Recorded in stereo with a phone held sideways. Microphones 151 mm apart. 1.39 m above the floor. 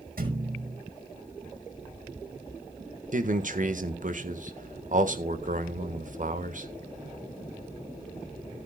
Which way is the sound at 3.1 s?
60° right (ahead or behind).